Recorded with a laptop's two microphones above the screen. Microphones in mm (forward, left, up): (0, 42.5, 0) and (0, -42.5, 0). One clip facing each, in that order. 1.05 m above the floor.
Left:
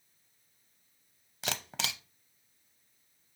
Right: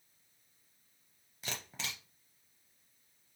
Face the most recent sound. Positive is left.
turn(degrees=85)